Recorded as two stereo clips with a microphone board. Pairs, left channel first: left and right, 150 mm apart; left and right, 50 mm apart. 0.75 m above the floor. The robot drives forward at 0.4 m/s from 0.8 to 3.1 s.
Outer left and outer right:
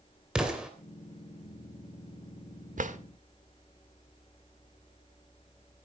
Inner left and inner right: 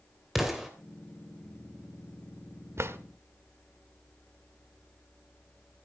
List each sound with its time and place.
0.3 s an explosion: 5° right (ahead or behind), 3 m
2.8 s a drawer: 60° right (ahead or behind), 1.1 m; by 3.0 s 55° right (ahead or behind), 1.2 m